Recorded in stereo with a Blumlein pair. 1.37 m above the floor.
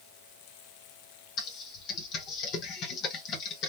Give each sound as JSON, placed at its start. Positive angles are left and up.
{"t": 1.4, "sound": "typing on a keyboard", "azimuth_deg": 35, "distance_m": 1.3}